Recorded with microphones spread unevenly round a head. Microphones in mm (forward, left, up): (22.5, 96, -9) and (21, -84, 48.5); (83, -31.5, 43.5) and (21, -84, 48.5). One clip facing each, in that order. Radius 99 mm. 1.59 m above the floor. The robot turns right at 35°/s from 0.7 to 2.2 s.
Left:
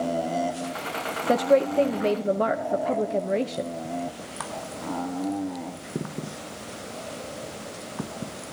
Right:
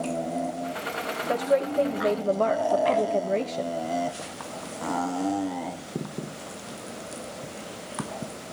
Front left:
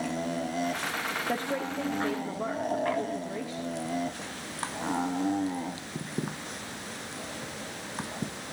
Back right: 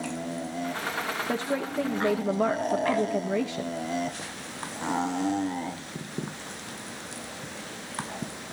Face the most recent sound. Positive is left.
turn(degrees=170)